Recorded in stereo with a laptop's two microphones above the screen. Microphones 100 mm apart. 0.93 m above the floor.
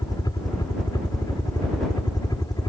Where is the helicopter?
40° left (ahead or behind).